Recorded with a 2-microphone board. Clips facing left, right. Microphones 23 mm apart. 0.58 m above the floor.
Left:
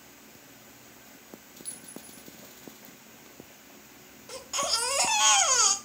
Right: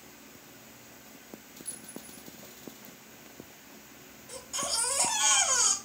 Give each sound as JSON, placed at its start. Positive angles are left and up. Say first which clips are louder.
{"t": 1.6, "sound": "a clink", "louder": "even", "side_deg": 75, "distance_m": 1.6}
{"t": 4.3, "sound": "a baby crying", "louder": "left 4 dB", "side_deg": 45, "distance_m": 1.0}